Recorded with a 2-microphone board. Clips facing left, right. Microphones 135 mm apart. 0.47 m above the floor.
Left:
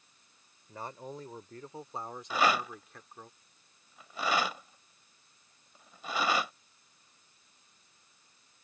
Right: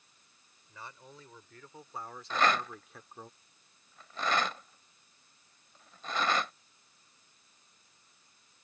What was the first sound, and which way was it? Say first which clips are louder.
A man speaking: left 8 dB; 50° left (ahead or behind).